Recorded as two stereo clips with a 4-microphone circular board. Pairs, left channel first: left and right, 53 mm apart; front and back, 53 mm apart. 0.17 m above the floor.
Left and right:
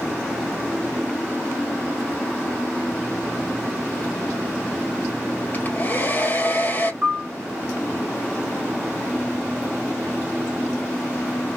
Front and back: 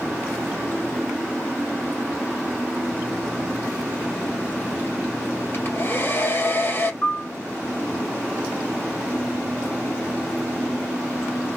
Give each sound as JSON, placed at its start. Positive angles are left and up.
{"t": 5.5, "sound": "a hair dryer", "azimuth_deg": 35, "distance_m": 2.0}
{"t": 7.0, "sound": "a piano", "azimuth_deg": -35, "distance_m": 0.7}